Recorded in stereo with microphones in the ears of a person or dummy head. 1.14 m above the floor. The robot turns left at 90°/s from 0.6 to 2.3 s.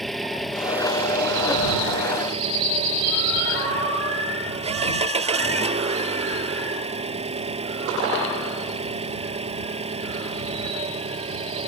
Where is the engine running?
10° left; by 11.7 s 145° right.